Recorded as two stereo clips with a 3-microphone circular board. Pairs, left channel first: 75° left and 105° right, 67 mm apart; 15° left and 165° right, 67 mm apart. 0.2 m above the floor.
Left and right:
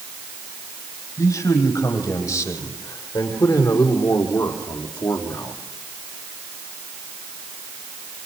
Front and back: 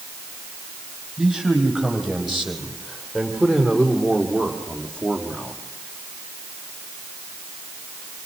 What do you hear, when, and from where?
1.2 s a man speaking: 105° left, 7 m; by 5.5 s 85° left, 6 m